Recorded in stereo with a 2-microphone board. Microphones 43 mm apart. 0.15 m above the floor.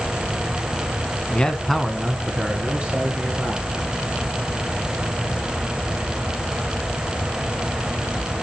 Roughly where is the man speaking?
Left.